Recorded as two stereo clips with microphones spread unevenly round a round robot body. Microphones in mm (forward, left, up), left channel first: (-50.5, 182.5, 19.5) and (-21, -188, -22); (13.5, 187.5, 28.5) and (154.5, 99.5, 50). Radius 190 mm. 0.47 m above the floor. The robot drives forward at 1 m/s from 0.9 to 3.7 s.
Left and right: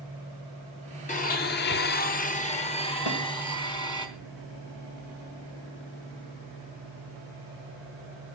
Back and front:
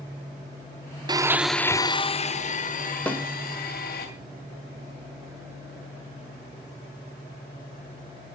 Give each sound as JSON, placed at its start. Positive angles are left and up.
{"t": 1.1, "sound": "a blender", "azimuth_deg": 30, "distance_m": 0.8}
{"t": 3.1, "sound": "a snare drum", "azimuth_deg": 70, "distance_m": 2.5}